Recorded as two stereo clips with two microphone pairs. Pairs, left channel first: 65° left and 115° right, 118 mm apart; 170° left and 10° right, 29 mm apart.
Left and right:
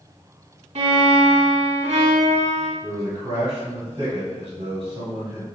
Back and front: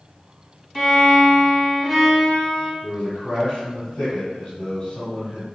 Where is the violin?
105° right, 0.9 m.